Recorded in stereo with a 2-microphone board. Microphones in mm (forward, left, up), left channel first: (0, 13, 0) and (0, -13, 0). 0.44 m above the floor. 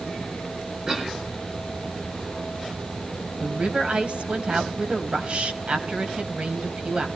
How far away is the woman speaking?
About 2.5 m.